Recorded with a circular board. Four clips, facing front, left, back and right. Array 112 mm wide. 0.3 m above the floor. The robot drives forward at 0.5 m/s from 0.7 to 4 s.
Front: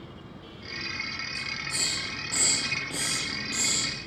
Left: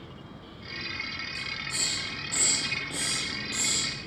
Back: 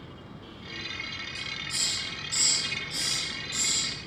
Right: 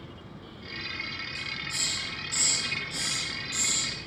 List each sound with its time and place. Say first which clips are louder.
1.4 s a hiss: left 1 dB, front 3 dB; 30° left, 5 m; by 4.0 s 40° left, 4 m